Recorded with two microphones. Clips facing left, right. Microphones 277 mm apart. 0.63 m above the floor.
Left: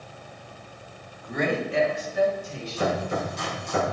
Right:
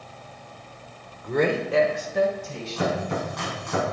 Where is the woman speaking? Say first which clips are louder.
Right 4 dB; 65° right (ahead or behind), 1.8 m; by 3.1 s 80° right, 3.5 m.